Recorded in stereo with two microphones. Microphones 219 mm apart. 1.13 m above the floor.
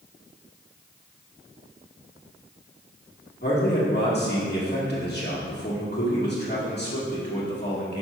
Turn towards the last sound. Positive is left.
turn(degrees=50)  # may be behind; listen again after turning